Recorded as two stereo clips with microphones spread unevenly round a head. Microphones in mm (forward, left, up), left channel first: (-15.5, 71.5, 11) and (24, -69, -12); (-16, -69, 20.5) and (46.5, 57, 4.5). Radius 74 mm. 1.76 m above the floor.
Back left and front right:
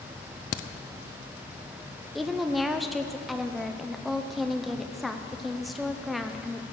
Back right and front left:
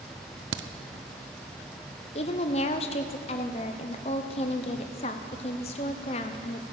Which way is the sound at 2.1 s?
165° right.